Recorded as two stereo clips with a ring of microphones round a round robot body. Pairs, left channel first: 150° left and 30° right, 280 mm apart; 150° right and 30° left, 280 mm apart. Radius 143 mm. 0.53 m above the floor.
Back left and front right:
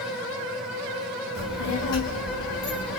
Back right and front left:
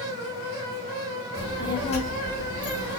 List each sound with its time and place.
1.4 s a child speaking: 130° left, 1.2 m; by 3.0 s straight behind, 1.0 m